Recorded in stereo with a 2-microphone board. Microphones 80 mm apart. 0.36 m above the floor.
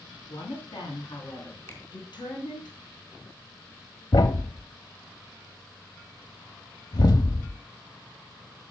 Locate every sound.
0.3 s a woman speaking: 70° left (ahead or behind), 3.5 m
1.7 s a finger snap: 40° left (ahead or behind), 3.5 m
4.1 s a thud: 60° left (ahead or behind), 0.7 m